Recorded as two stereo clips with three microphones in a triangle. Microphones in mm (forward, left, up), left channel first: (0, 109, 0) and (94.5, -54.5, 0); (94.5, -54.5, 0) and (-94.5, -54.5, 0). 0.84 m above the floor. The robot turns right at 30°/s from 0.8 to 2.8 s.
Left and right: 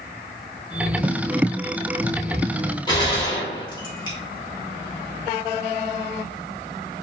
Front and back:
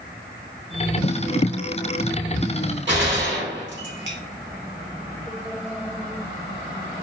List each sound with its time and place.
2.9 s a gunshot: 175° right, 1.5 m